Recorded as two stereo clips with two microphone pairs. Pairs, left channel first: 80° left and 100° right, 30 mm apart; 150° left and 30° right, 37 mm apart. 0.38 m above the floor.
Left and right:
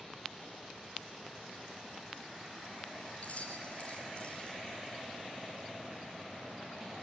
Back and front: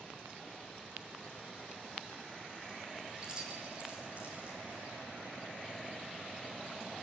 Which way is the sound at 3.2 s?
45° left.